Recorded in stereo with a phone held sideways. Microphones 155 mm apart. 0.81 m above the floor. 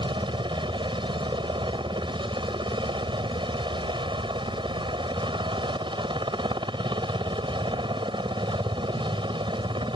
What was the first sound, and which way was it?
A helicopter, 30° right (ahead or behind).